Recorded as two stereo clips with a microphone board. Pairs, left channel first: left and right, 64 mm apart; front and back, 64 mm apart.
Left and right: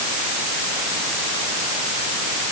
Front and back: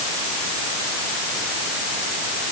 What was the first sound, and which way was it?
Only background noise.